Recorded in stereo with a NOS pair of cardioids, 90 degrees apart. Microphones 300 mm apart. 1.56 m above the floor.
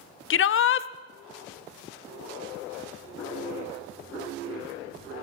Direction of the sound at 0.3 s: 40° left.